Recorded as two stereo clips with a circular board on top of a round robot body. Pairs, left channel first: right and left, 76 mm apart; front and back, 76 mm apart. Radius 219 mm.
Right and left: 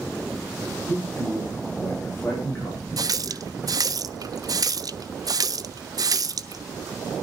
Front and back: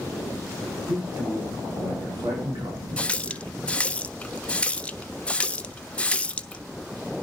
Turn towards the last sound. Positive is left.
turn(degrees=70)